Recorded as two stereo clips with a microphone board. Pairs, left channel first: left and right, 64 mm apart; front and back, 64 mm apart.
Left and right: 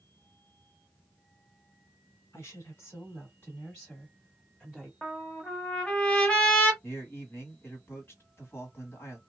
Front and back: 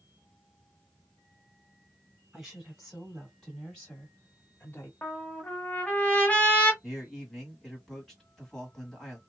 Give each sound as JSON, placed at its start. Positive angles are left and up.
{"t": 2.3, "sound": "a woman speaking", "azimuth_deg": 110, "distance_m": 1.8}
{"t": 5.0, "sound": "a trumpet", "azimuth_deg": 40, "distance_m": 1.0}
{"t": 6.8, "sound": "a man speaking", "azimuth_deg": 80, "distance_m": 1.5}